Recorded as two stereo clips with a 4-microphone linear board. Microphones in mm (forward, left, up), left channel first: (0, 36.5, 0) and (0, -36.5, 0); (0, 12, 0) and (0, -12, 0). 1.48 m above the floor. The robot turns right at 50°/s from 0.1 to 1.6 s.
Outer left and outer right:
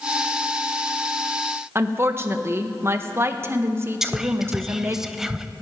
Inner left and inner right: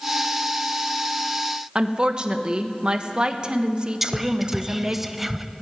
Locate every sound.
1.8 s a woman speaking: 35° right (ahead or behind), 1.2 m
4.0 s whispering: 5° right (ahead or behind), 0.7 m